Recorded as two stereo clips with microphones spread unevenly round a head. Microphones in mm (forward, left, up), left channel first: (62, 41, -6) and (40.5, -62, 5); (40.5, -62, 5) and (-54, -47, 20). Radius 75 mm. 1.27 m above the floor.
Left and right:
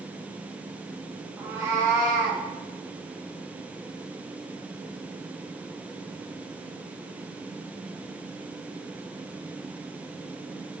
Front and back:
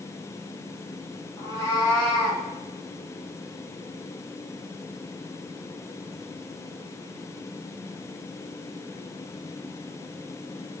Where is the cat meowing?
50° right, 0.6 m; by 2.4 s 65° right, 1.5 m.